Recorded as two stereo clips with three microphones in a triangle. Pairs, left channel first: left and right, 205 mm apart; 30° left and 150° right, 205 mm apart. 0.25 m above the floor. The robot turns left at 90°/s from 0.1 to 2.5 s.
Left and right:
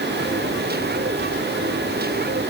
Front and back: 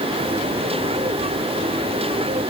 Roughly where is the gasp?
No gasp in this recording.